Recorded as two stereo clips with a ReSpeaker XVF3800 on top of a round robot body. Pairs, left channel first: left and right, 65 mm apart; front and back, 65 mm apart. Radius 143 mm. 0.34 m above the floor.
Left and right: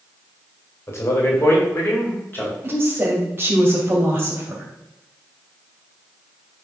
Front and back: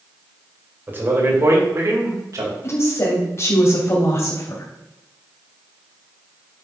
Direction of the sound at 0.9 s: 125° left.